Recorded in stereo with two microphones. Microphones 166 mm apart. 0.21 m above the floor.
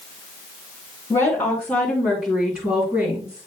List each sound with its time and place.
1.1 s a woman speaking: 15° left (ahead or behind), 3 m; by 3.5 s 25° right (ahead or behind), 3.5 m